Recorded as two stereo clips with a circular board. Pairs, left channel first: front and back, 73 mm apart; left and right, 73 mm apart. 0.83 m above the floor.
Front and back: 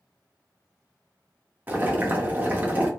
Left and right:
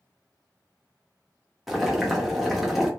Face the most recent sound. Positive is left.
turn(degrees=-175)